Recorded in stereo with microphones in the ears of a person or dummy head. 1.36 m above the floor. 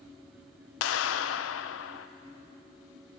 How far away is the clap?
About 0.8 m.